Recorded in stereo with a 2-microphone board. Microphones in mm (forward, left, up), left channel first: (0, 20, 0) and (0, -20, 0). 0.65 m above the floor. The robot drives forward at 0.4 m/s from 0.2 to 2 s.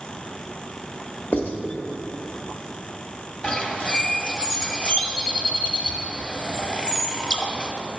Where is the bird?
35° left (ahead or behind), 0.9 m.